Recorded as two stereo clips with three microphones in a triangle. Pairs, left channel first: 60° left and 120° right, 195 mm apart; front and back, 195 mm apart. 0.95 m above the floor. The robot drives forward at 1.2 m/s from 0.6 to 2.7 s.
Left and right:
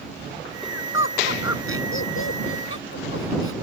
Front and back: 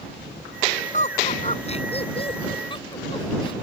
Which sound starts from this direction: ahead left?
Laughter, at 0.9 s.